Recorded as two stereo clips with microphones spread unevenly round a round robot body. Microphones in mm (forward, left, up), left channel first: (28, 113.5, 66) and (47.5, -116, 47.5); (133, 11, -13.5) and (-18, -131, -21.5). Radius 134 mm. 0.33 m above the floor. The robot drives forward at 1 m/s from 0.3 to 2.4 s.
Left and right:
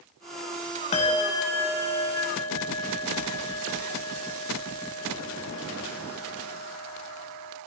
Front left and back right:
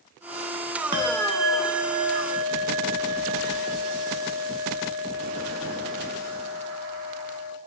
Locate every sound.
0.9 s a bell: 160° left, 0.8 m; by 7.6 s 175° left, 2 m